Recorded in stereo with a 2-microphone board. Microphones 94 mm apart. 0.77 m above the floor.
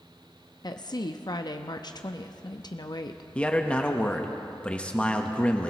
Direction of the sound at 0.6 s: 45° left (ahead or behind).